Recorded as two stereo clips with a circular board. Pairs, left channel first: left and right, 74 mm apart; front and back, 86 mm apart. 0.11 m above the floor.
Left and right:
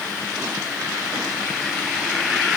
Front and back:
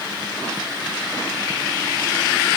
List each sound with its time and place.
Only background noise.